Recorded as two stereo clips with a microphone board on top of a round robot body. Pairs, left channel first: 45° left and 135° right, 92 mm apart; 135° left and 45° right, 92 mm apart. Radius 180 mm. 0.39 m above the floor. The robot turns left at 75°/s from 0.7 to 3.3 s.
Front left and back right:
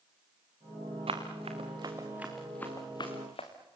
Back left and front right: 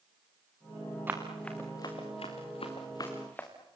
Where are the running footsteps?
115° right, 4 m; by 3.5 s 60° left, 4 m.